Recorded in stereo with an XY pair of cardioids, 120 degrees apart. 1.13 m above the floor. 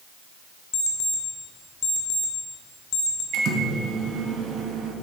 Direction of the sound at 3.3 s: 65° right.